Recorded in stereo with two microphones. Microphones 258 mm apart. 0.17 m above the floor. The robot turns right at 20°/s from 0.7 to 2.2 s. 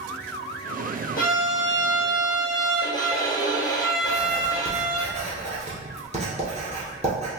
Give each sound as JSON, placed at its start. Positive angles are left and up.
{"t": 1.2, "sound": "a violin", "side_deg": 35, "distance_m": 1.0}
{"t": 4.0, "sound": "writing", "side_deg": -25, "distance_m": 1.4}